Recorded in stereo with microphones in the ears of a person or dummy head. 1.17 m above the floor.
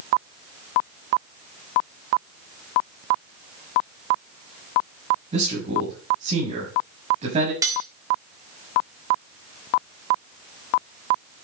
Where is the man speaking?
35° right (ahead or behind), 6 m.